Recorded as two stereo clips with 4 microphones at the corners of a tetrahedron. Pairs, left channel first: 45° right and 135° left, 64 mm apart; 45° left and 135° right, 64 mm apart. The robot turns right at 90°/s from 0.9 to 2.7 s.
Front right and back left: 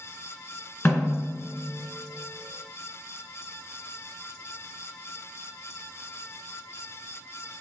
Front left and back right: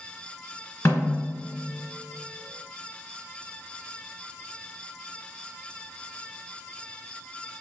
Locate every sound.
0.8 s a snare drum: 10° left, 1.5 m; by 1.2 s 35° left, 1.5 m